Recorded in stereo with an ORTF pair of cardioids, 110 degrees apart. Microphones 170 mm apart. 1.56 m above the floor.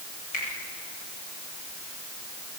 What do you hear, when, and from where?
0.3 s a finger snap: 50° left, 8.5 m